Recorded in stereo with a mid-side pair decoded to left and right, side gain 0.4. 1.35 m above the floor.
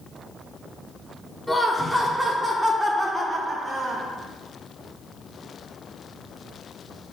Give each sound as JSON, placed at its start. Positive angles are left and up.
{"t": 1.5, "sound": "laughter", "azimuth_deg": 10, "distance_m": 1.3}